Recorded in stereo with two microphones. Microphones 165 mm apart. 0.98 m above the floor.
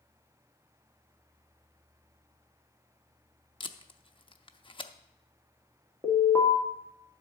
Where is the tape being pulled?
30° left (ahead or behind), 0.5 m.